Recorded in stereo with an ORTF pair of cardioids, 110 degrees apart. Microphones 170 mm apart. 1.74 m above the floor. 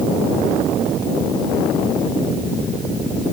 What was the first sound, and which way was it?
Only background noise.